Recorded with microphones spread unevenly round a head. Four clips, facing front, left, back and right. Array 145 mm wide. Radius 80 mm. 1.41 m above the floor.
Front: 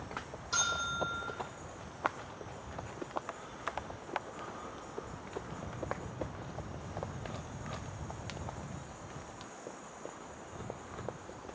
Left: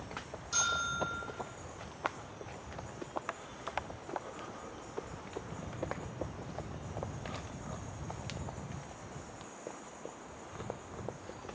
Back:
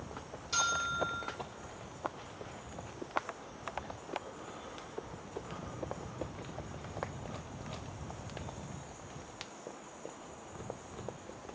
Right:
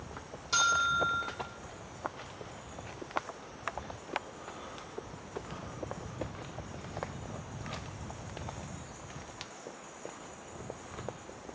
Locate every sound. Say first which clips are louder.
0.5 s a bell: right 7 dB, back 2 dB; 120° right, 1.1 m